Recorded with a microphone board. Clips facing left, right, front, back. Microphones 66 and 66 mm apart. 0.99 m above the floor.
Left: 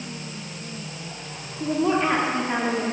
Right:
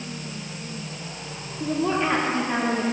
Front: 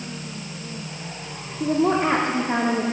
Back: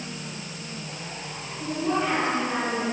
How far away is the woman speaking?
About 2 m.